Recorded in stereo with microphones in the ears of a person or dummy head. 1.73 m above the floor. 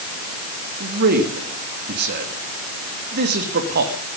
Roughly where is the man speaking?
Right.